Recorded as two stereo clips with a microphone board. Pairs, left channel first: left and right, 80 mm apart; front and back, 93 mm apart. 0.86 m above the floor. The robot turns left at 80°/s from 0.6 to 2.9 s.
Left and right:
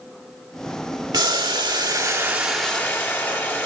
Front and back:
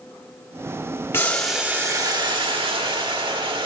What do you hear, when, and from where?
1.1 s boiling: 65° right, 1.8 m; by 3.7 s 155° left, 1.8 m